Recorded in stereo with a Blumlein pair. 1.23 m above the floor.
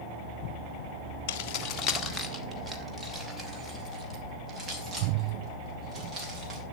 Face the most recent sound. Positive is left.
turn(degrees=-25)